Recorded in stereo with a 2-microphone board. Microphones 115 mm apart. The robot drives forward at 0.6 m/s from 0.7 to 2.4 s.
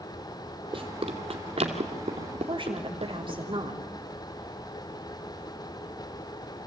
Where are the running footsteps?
50° right (ahead or behind), 2 m; by 3.3 s 65° right (ahead or behind), 3 m.